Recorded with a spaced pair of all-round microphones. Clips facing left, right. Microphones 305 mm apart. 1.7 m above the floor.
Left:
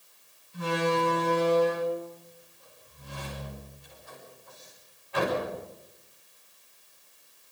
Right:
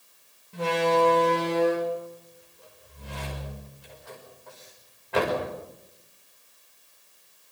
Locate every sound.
0.5 s a door slam: 85° right, 6.5 m